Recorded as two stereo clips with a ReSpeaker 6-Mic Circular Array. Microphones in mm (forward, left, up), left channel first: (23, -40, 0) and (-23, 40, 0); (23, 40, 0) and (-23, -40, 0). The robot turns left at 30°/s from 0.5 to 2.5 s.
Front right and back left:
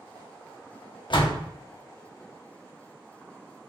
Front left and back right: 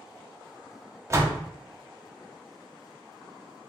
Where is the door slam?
65° right, 0.9 m; by 1.4 s 75° right, 0.9 m.